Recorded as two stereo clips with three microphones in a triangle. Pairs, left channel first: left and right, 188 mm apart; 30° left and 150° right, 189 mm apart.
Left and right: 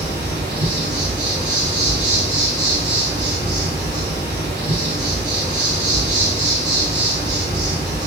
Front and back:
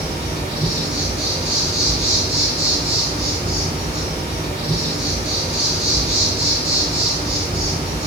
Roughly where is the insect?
Right.